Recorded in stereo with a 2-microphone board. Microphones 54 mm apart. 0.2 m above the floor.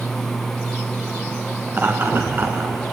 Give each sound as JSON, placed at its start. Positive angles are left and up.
{"t": 1.7, "sound": "laughter", "side_deg": -35, "distance_m": 2.5}